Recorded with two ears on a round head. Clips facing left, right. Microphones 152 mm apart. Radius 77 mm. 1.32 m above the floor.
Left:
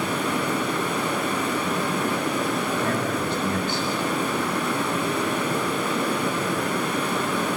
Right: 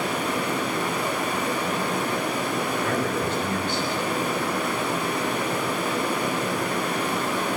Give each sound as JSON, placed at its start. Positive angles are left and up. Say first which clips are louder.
{"t": 0.0, "sound": "running water", "louder": "left 1 dB", "side_deg": 75, "distance_m": 8.0}
{"t": 2.8, "sound": "a man speaking", "louder": "even", "side_deg": 35, "distance_m": 8.5}